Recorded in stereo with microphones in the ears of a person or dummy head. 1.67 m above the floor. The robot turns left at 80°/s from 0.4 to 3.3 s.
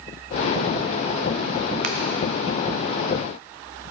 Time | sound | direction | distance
1.8 | a finger snap | 35° right (ahead or behind) | 0.5 m